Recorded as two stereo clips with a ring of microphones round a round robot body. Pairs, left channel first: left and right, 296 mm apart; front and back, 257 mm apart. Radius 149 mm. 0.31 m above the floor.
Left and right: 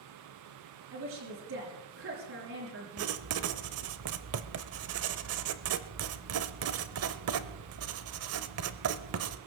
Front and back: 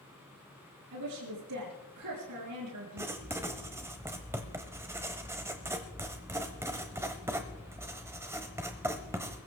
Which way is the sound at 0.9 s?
140° right.